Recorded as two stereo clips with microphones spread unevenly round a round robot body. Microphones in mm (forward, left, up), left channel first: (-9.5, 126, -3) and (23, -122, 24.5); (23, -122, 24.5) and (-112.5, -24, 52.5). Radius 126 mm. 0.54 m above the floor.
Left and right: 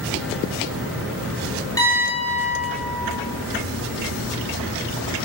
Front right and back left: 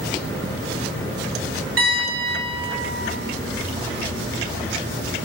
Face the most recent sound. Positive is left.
turn(degrees=170)